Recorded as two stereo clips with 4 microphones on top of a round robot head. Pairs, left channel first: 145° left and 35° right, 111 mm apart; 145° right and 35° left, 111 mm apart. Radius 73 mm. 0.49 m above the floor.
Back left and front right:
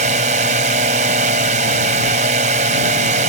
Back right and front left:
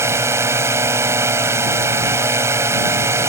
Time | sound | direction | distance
0.0 | a drone | 30° right | ?